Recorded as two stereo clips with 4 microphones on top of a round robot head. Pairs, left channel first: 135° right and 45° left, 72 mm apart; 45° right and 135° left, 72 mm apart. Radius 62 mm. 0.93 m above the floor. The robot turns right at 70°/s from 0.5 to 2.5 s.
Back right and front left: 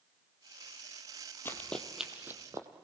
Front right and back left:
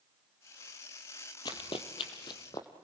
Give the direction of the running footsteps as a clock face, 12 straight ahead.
2 o'clock.